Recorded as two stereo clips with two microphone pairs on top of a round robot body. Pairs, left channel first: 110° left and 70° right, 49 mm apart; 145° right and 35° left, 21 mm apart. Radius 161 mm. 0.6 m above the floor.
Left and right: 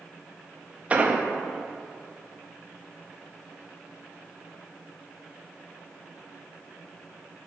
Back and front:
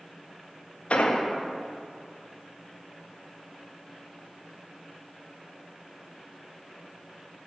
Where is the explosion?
125° right, 0.7 m.